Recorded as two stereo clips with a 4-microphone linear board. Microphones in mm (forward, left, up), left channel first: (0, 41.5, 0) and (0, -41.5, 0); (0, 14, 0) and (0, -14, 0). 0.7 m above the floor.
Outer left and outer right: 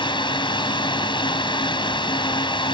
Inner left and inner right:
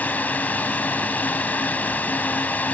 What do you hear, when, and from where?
0.0 s a drone: 75° left (ahead or behind)